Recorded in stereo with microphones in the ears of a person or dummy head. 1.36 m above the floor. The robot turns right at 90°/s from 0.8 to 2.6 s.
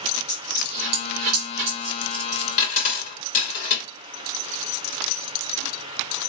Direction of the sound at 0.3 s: 60° right (ahead or behind).